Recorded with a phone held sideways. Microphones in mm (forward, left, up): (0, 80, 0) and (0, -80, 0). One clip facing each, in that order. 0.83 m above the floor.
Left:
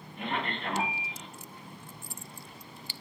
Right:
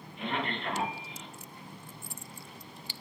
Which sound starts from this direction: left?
A man speaking, at 0.2 s.